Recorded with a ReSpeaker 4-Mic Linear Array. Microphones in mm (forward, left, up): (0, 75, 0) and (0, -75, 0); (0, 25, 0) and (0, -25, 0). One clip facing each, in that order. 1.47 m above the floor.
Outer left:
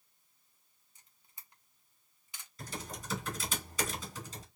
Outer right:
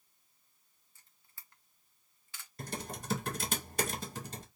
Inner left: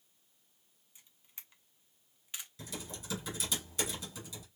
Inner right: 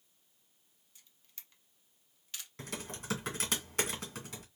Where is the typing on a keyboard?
55° right (ahead or behind), 1.9 m.